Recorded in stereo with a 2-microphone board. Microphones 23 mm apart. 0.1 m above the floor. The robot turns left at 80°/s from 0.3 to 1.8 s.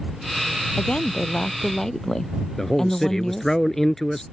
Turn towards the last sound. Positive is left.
turn(degrees=20)  # may be behind; listen again after turning